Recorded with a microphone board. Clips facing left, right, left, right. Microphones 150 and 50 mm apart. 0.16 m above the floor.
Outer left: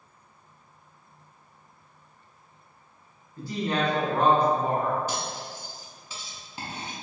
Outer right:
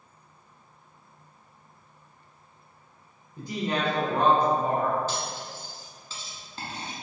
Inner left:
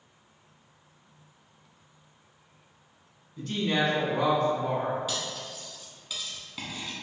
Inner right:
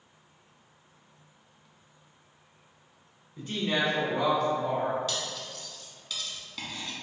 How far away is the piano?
No piano in this recording.